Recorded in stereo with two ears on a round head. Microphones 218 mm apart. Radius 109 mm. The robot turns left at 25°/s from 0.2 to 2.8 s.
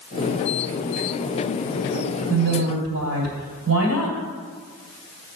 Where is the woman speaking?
50° right (ahead or behind), 2.5 m; by 4.2 s 60° right (ahead or behind), 2.5 m.